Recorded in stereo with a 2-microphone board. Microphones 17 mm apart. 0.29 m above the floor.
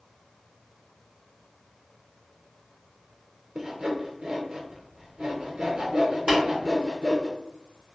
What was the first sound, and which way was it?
Sawing, 55° right (ahead or behind).